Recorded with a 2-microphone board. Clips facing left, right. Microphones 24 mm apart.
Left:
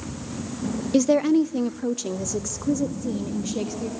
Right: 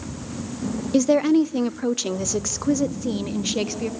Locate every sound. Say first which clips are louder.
0.9 s a woman speaking: right 1 dB; 5° left (ahead or behind), 0.5 m; by 3.9 s 55° right (ahead or behind), 2 m